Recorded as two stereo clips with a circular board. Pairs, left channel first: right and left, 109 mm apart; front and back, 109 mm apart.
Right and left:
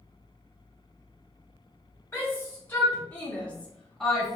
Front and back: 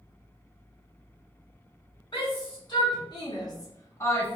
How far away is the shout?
About 1.6 m.